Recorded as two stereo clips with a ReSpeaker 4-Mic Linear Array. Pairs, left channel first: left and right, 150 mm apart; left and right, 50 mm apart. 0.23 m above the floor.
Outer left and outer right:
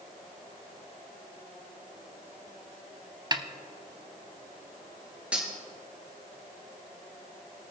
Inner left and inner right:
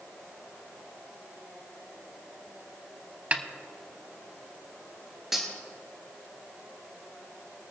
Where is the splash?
I don't hear a splash.